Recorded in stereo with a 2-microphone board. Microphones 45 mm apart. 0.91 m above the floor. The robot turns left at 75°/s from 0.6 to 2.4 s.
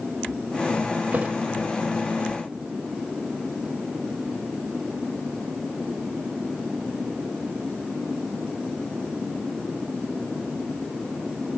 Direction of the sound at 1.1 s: 40° right (ahead or behind).